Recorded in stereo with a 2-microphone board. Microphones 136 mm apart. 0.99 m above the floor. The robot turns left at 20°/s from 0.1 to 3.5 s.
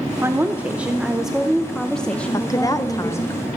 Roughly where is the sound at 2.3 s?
Left.